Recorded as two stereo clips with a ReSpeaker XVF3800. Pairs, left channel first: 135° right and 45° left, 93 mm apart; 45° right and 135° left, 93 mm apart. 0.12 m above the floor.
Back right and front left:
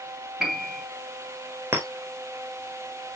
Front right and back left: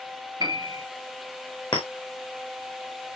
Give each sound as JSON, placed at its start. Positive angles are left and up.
{"t": 0.4, "sound": "a piano", "azimuth_deg": 130, "distance_m": 2.5}
{"t": 1.7, "sound": "a clink", "azimuth_deg": -15, "distance_m": 4.5}